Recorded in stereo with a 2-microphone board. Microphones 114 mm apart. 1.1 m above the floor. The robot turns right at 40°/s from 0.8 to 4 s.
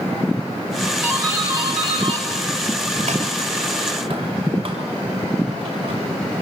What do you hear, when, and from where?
1.0 s a doorbell: 10° right (ahead or behind), 6.5 m; by 6.0 s 50° right (ahead or behind), 6.5 m